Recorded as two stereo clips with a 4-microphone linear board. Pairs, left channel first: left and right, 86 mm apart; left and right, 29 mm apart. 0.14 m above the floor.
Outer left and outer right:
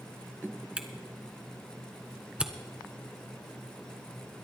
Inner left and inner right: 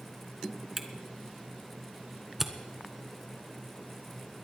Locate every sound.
0.8 s a camera shutter: 10° right (ahead or behind), 1.1 m